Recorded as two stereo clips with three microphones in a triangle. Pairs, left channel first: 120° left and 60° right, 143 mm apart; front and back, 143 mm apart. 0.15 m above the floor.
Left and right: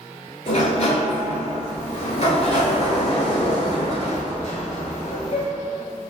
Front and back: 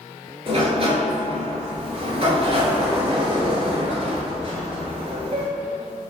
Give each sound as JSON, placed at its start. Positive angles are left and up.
{"t": 0.5, "sound": "a sliding door", "azimuth_deg": 145, "distance_m": 0.8}